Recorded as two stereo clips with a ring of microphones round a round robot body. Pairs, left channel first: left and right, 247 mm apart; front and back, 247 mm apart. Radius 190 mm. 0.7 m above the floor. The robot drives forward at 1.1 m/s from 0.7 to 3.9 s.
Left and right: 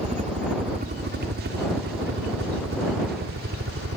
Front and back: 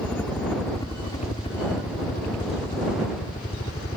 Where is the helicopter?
75° right; by 4.0 s 70° right.